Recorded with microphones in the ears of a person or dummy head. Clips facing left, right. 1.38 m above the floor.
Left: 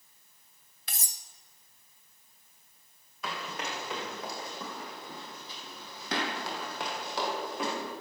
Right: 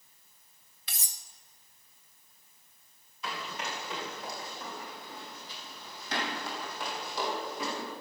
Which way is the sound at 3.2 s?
40° left (ahead or behind).